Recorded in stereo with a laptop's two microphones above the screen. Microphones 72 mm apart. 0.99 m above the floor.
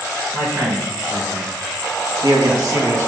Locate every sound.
0.3 s a man speaking: 50° right (ahead or behind), 1.6 m; by 3.1 s 40° right (ahead or behind), 0.8 m